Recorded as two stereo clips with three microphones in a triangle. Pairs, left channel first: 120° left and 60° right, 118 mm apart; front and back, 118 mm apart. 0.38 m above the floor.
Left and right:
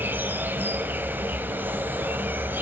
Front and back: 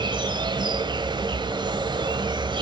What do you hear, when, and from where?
0.0 s an insect: 130° right, 0.8 m